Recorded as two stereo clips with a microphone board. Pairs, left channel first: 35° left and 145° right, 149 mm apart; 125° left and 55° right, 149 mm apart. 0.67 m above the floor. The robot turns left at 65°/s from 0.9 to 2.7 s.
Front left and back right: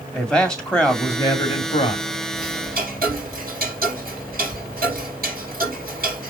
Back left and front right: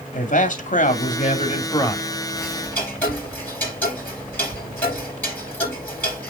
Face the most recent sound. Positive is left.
turn(degrees=-155)